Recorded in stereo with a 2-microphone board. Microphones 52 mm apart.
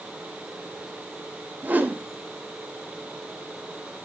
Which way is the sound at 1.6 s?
30° right (ahead or behind).